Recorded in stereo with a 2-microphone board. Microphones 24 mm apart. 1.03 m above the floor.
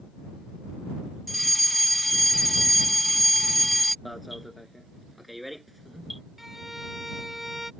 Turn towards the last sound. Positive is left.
turn(degrees=-10)  # may be behind; listen again after turning